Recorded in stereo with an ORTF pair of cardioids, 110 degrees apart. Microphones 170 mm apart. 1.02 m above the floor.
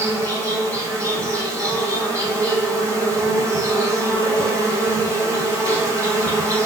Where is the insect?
15° right, 0.9 m.